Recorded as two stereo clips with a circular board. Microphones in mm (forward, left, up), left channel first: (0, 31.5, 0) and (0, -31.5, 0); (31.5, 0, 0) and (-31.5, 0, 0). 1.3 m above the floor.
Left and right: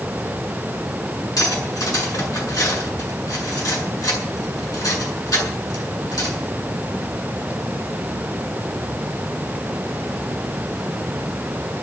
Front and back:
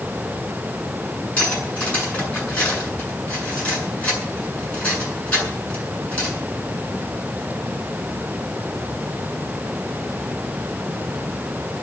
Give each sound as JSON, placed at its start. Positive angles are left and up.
{"t": 1.4, "sound": "cutlery clinking", "azimuth_deg": 70, "distance_m": 7.5}